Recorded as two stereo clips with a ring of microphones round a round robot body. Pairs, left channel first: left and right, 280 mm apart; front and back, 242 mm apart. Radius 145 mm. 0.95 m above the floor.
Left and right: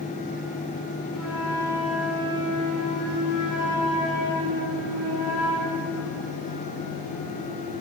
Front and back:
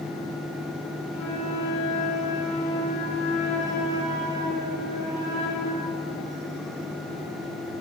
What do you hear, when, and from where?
1.1 s a flute: straight ahead, 6 m